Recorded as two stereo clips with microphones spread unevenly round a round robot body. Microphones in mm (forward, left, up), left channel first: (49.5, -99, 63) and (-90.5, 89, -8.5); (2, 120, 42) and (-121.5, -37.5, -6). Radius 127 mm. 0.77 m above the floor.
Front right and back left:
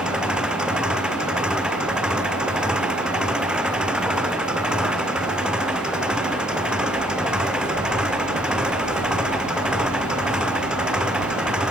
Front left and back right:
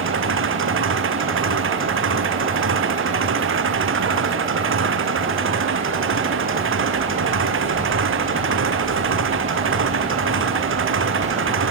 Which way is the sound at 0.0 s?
145° right.